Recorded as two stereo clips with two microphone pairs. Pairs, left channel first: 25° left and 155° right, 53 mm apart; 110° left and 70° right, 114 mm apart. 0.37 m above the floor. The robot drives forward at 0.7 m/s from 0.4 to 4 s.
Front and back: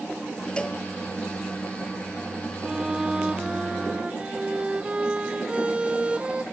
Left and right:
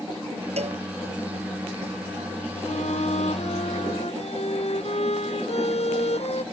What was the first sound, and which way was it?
A cowbell, 50° right.